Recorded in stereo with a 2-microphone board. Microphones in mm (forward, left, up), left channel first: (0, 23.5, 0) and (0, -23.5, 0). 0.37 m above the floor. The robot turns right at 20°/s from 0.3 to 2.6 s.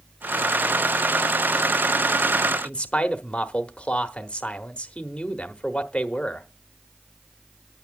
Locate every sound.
2.6 s a man speaking: 25° left (ahead or behind), 1.0 m